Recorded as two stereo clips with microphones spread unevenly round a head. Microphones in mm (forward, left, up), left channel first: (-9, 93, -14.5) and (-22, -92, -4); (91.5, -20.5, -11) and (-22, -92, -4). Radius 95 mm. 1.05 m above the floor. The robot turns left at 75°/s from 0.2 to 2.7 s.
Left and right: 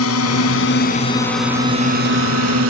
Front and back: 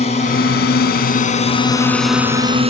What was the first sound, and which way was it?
A drone, 90° left.